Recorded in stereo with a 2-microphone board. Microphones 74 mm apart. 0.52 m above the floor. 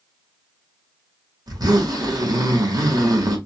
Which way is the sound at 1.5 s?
60° right (ahead or behind).